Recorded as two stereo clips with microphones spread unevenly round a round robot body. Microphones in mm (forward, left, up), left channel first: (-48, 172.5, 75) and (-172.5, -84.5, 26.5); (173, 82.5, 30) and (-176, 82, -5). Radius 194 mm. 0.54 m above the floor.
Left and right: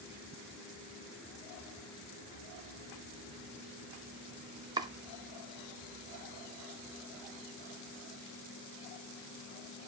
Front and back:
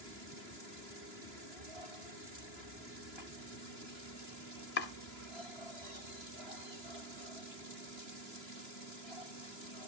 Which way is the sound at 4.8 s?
55° right.